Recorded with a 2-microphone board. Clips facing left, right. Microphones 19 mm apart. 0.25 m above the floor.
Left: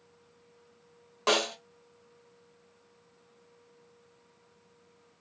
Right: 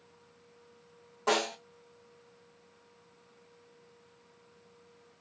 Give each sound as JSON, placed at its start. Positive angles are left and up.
{"t": 1.3, "sound": "a snare drum", "side_deg": 55, "distance_m": 1.8}